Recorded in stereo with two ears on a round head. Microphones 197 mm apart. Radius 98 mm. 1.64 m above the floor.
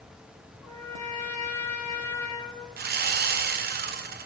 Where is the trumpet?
15° left (ahead or behind), 3 m.